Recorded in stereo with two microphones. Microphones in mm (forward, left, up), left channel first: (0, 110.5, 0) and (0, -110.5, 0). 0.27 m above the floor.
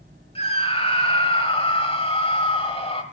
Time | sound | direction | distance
0.3 | a scream | 25° left (ahead or behind) | 1.1 m